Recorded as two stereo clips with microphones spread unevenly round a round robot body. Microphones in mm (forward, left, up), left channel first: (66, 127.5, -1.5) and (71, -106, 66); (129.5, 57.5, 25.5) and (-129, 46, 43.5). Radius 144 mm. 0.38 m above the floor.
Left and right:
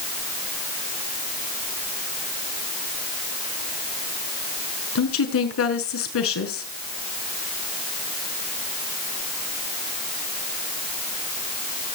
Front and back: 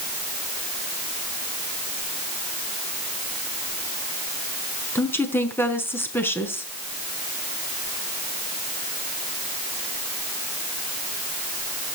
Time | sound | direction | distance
5.0 | a woman speaking | 85° left | 5.5 m